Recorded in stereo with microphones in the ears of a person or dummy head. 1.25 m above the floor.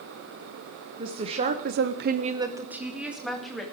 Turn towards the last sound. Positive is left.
turn(degrees=0)  # may be behind; listen again after turning